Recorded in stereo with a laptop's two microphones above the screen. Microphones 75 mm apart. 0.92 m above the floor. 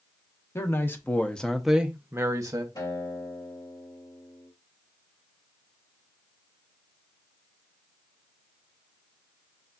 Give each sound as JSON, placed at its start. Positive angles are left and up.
{"t": 0.6, "sound": "a man speaking", "side_deg": 35, "distance_m": 1.3}
{"t": 2.8, "sound": "a guitar", "side_deg": 65, "distance_m": 2.5}